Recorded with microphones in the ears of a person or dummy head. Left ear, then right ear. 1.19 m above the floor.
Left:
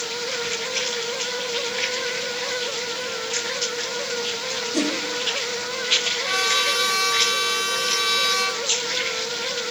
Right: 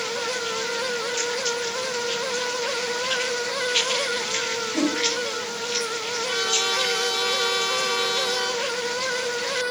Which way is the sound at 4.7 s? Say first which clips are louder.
Left 1 dB; 65° left (ahead or behind).